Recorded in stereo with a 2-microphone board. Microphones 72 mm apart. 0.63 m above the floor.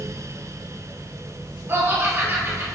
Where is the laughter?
35° right (ahead or behind), 2.5 m.